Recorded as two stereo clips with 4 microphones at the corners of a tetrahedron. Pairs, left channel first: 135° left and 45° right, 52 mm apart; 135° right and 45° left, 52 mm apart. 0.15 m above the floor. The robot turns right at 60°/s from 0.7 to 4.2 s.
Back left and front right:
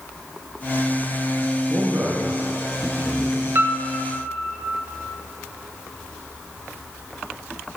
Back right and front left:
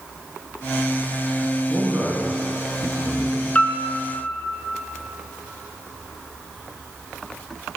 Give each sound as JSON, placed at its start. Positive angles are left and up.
{"t": 1.7, "sound": "a man speaking", "azimuth_deg": -20, "distance_m": 1.5}
{"t": 3.5, "sound": "a piano", "azimuth_deg": -75, "distance_m": 0.6}